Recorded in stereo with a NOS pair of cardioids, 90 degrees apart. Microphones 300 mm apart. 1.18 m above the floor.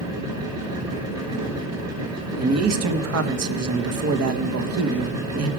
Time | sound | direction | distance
0.0 | a machine running | 60° right | 5 m
2.4 | a man speaking | 55° right | 1.3 m